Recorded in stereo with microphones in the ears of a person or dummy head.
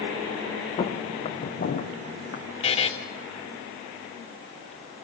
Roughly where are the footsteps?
Left.